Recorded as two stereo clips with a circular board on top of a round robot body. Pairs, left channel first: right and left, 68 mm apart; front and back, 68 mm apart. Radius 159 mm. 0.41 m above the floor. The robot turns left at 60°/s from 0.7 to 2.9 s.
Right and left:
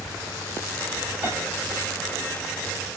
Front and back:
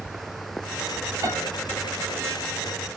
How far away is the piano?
About 3 m.